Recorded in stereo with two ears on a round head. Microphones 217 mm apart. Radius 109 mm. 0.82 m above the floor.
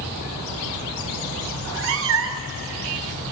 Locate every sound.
1.6 s a cat meowing: 55° right (ahead or behind), 0.5 m